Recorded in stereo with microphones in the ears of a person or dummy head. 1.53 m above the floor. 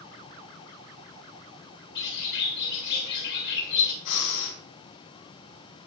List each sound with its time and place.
1.9 s a bird: 55° left (ahead or behind), 3 m
4.0 s breathing: 65° left (ahead or behind), 4 m